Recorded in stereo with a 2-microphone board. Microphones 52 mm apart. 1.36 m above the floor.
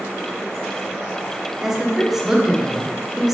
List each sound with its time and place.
1.6 s a woman speaking: 5° right (ahead or behind), 0.7 m